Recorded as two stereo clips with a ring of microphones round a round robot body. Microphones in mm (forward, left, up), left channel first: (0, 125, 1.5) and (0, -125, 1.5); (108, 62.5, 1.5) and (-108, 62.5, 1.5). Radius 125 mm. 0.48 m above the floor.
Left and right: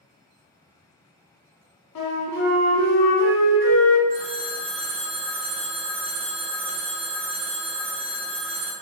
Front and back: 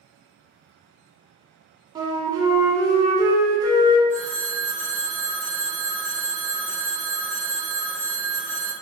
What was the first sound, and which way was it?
A flute, 110° left.